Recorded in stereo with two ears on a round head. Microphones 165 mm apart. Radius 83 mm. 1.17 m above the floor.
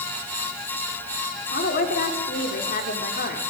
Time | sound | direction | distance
1.5 | a woman speaking | 50° left (ahead or behind) | 3.5 m